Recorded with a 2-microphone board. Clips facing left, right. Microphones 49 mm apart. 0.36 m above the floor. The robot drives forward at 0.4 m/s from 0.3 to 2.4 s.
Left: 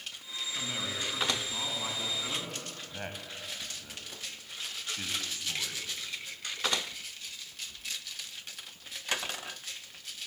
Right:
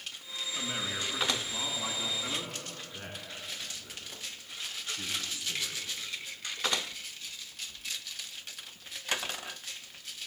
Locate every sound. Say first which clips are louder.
0.6 s a man speaking: right 1 dB; 5° left (ahead or behind), 3.5 m
2.9 s a man speaking: left 2 dB; 45° left (ahead or behind), 2.5 m